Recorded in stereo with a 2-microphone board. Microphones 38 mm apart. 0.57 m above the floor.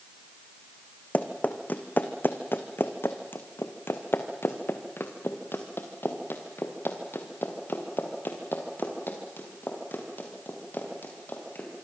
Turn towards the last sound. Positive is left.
turn(degrees=55)  # may be behind; listen again after turning